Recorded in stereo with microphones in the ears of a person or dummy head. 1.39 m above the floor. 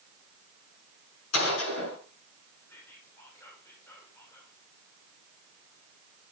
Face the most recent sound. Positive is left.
turn(degrees=15)  # may be behind; listen again after turning